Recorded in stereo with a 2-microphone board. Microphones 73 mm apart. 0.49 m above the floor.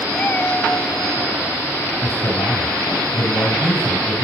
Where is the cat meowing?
10° left (ahead or behind), 0.6 m; by 1.4 s 50° left (ahead or behind), 2.5 m.